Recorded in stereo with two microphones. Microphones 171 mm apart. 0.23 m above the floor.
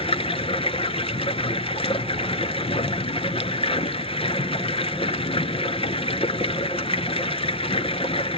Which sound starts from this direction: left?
Running water, at 0.0 s.